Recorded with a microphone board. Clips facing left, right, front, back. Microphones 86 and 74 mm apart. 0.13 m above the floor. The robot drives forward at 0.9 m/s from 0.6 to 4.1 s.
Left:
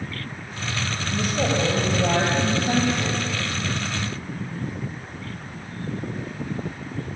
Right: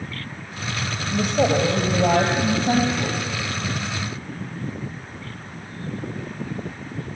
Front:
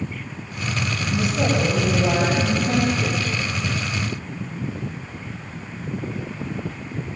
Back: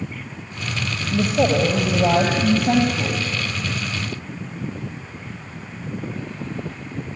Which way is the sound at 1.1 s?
155° right.